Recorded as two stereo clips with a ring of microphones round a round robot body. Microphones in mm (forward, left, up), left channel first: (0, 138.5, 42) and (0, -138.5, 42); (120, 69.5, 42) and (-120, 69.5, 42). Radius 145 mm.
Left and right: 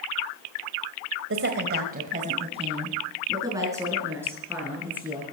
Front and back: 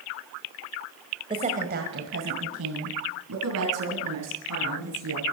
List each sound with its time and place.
1.3 s a woman speaking: 115° right, 1.6 m; by 5.2 s 175° right, 6 m